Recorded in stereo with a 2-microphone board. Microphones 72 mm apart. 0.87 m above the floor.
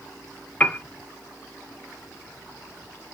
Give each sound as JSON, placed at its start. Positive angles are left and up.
{"t": 0.6, "sound": "a piano", "side_deg": 20, "distance_m": 0.6}